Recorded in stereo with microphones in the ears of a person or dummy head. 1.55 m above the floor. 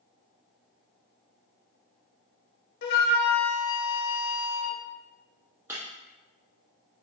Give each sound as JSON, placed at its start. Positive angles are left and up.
{"t": 2.8, "sound": "a flute", "side_deg": 60, "distance_m": 0.8}
{"t": 5.7, "sound": "breaking glass", "side_deg": -5, "distance_m": 1.4}